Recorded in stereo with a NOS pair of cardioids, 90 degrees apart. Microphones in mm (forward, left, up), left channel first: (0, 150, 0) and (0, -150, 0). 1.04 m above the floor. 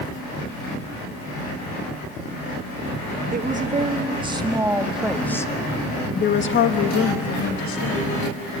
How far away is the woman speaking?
About 2.5 m.